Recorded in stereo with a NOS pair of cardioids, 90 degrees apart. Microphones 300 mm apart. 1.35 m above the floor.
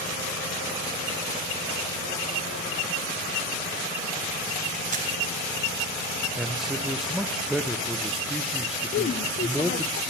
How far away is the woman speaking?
About 0.8 m.